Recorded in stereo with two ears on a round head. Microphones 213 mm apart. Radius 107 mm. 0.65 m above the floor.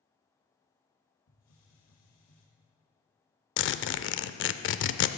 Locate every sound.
1.3 s a hiss: 75° left (ahead or behind), 3 m
3.6 s a zipper: 55° left (ahead or behind), 0.5 m